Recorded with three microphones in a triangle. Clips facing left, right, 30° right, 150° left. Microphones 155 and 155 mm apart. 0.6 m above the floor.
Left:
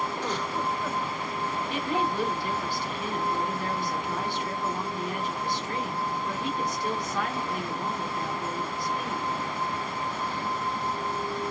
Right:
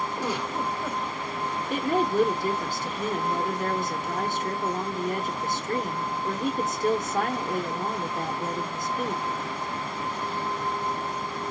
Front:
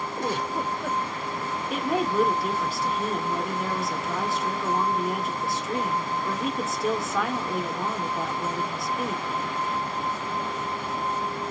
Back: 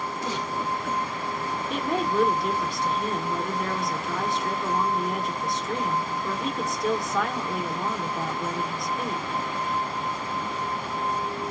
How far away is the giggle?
About 1.0 m.